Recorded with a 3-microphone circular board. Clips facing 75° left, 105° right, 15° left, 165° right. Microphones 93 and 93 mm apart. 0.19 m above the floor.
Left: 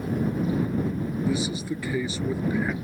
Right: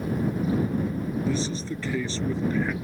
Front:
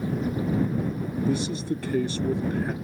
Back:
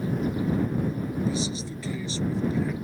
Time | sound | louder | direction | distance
1.3 | a man speaking | left 1 dB, front 3 dB | straight ahead | ?